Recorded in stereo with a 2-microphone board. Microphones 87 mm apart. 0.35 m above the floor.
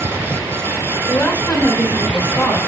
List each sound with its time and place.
1.1 s a woman speaking: 25° left (ahead or behind), 1.0 m